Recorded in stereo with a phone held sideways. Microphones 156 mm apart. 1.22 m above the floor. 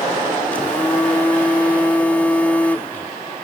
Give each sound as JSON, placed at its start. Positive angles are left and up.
{"t": 0.5, "sound": "a phone buzzing", "side_deg": 10}